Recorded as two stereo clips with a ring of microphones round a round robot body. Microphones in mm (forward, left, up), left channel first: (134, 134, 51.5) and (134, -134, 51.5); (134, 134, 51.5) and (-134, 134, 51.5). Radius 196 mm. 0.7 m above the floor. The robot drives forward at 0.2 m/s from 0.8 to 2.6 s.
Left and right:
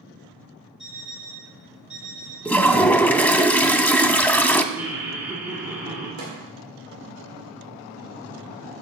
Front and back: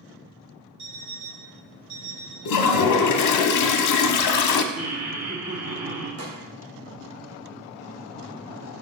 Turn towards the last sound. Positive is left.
turn(degrees=-135)